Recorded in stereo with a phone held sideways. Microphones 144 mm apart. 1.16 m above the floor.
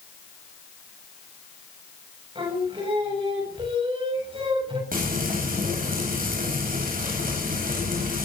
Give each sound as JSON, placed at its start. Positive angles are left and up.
{"t": 2.4, "sound": "singing", "side_deg": -35, "distance_m": 7.0}
{"t": 4.9, "sound": "frying", "side_deg": -70, "distance_m": 9.0}